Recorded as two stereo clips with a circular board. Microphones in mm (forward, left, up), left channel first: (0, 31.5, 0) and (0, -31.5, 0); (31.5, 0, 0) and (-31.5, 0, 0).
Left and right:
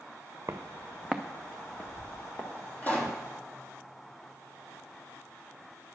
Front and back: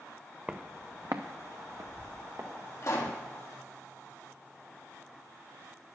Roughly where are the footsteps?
Behind right.